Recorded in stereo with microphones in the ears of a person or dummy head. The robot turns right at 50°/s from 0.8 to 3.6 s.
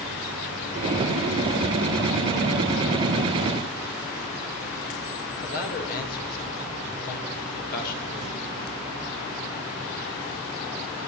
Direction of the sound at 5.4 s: 50° left (ahead or behind).